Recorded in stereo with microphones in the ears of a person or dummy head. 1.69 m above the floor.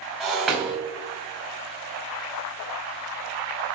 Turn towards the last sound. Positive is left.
turn(degrees=-5)  # may be behind; listen again after turning